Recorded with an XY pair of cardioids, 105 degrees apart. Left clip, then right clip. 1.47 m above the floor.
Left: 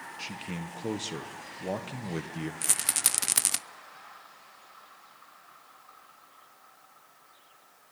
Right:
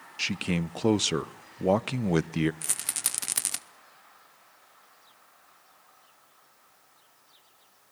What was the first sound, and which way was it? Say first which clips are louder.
A man speaking: right 11 dB; 65° right.